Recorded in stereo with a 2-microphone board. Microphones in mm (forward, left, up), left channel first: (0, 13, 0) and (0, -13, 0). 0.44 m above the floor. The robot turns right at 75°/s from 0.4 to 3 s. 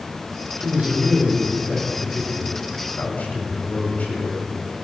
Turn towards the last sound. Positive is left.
turn(degrees=80)